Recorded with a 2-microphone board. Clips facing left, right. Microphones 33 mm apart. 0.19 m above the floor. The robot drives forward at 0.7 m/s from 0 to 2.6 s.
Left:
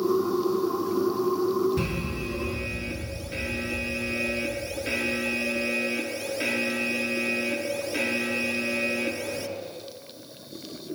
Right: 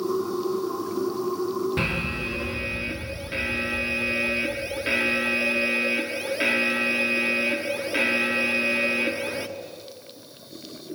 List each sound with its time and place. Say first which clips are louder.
1.8 s an alarm: right 4 dB; 40° right (ahead or behind), 1.1 m; by 9.5 s 30° right (ahead or behind), 1.5 m